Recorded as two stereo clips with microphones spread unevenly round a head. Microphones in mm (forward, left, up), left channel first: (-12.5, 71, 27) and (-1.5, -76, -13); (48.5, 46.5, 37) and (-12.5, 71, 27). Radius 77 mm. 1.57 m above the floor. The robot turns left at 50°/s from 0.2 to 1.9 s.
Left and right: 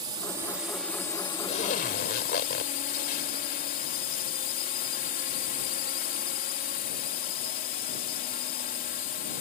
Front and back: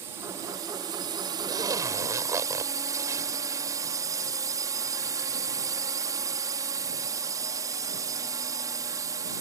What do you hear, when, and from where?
0.0 s a drone: 145° right; by 9.4 s 130° left
1.5 s a zipper: 140° left; by 4.2 s 115° left